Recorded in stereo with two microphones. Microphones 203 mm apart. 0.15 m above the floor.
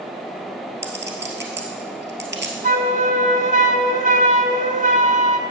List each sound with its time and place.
0.8 s a clink: 65° right (ahead or behind), 2.0 m
2.6 s a flute: 40° right (ahead or behind), 0.9 m